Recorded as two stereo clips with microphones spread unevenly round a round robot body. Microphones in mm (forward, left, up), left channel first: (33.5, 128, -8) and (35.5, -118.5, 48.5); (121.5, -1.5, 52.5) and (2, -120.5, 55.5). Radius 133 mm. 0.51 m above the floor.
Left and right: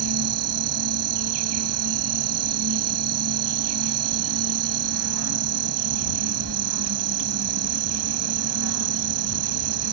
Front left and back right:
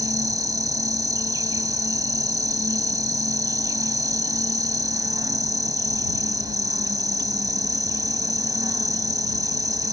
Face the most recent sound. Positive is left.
turn(degrees=-65)